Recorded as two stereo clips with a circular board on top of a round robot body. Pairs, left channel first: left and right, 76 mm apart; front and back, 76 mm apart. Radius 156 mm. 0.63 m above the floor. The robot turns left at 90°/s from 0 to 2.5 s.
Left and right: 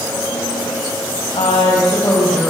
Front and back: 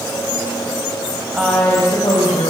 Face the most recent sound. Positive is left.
turn(degrees=0)